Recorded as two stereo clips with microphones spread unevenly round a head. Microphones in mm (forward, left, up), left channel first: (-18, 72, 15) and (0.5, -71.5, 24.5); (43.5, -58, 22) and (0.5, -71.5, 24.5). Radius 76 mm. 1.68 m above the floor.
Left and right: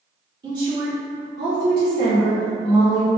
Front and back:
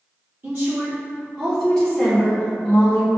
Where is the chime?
I don't hear a chime.